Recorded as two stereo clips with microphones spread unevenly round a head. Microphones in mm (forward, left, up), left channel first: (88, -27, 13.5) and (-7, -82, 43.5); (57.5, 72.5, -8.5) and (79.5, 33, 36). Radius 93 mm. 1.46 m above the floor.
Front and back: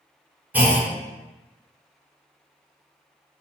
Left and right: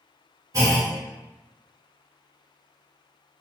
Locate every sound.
0.5 s a clunk: 75° right, 0.9 m